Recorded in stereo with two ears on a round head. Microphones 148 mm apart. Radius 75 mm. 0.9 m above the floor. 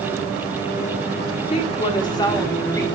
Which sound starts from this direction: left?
A woman speaking, at 1.5 s.